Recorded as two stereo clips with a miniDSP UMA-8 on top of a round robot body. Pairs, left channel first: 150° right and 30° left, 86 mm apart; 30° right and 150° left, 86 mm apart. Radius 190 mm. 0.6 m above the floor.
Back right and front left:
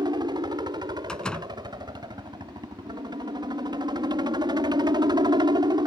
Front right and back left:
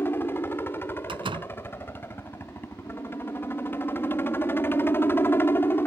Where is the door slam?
130° left.